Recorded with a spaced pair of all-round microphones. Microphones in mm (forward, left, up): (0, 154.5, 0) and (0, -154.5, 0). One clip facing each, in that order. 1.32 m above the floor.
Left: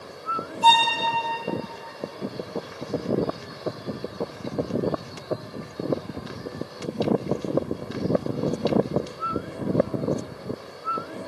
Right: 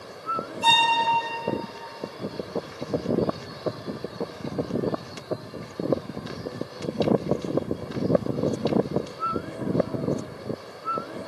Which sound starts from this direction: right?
A violin, at 0.6 s.